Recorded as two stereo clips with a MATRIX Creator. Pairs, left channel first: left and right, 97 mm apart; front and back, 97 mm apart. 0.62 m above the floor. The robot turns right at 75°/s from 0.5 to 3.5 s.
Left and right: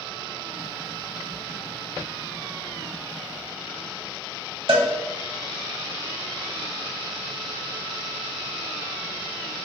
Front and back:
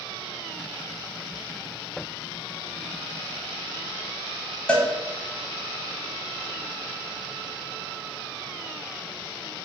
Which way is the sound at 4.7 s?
75° right.